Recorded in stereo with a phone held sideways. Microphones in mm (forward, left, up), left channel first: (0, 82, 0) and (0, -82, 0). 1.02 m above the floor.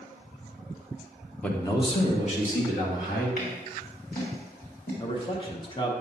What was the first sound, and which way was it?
A man speaking, 5° left (ahead or behind).